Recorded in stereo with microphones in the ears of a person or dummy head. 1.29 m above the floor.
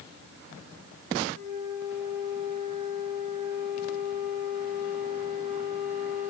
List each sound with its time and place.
1.3 s a flute: 55° right (ahead or behind), 9.5 m